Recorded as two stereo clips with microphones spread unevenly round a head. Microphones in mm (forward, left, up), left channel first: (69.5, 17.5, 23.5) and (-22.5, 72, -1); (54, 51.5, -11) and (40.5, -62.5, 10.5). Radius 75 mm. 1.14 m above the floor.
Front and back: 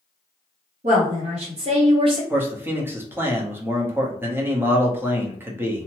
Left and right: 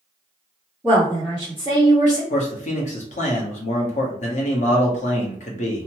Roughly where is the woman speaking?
Behind.